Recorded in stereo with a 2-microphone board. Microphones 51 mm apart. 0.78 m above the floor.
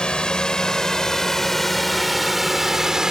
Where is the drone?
20° left (ahead or behind); by 3.1 s 15° right (ahead or behind).